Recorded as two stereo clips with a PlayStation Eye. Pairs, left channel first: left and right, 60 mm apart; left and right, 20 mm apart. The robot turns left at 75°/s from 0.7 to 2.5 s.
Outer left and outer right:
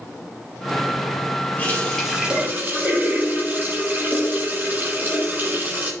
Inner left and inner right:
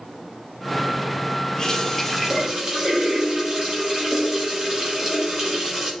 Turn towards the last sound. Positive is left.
turn(degrees=-35)